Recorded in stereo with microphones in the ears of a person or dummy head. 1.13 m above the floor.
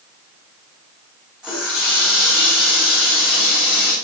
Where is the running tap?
Centre (ahead or behind), 4 m.